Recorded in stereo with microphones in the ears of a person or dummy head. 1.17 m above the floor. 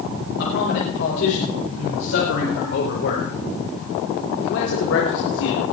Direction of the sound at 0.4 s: 65° left (ahead or behind).